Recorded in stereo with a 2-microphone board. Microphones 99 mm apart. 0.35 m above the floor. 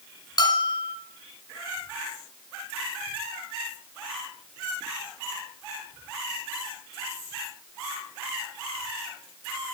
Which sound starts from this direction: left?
A bell, at 0.4 s.